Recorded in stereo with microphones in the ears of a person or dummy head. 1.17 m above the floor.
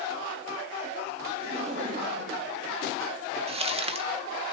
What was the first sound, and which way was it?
Laughter, 25° right (ahead or behind).